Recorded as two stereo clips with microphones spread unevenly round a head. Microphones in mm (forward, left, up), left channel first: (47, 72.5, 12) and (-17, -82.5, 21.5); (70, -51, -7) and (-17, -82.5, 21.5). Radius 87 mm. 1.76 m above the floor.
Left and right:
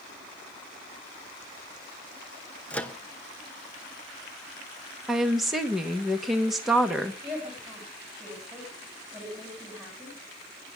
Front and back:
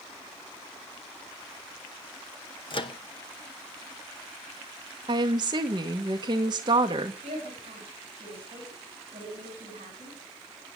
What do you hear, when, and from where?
2.7 s a microwave: 15° right, 1.0 m
5.1 s a woman speaking: 160° left, 1.4 m
7.2 s a woman speaking: 160° left, 9 m